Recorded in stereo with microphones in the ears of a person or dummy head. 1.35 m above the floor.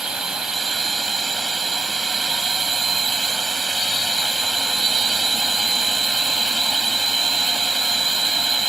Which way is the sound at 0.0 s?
5° right (ahead or behind).